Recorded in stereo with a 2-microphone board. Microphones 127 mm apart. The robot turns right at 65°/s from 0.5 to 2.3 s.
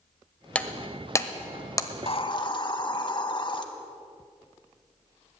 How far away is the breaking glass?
About 0.7 m.